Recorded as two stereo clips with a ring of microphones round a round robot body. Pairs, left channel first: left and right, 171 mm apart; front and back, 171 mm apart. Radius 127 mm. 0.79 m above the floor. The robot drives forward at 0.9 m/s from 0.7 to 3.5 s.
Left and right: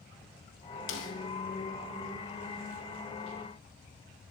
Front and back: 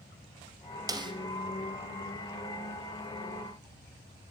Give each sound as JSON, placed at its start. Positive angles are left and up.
{"t": 0.9, "sound": "a snare drum", "azimuth_deg": 110, "distance_m": 1.6}